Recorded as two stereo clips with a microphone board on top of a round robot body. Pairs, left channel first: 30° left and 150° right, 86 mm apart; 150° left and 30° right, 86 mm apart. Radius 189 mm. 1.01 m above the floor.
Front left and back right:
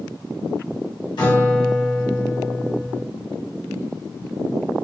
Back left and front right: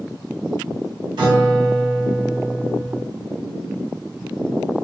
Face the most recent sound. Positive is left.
turn(degrees=0)